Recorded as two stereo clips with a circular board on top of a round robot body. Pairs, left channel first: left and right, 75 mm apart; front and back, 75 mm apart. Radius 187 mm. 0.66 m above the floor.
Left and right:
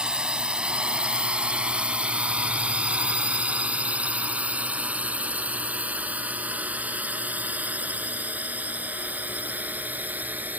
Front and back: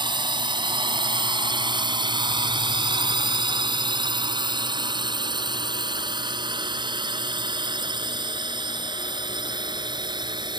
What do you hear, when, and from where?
0.0 s a drone: 170° right; by 10.6 s 160° right